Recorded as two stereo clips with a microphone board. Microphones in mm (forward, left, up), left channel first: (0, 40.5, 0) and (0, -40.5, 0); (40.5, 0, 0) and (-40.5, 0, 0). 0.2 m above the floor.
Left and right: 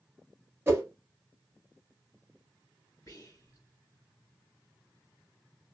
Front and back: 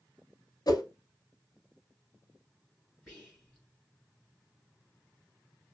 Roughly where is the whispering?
Left.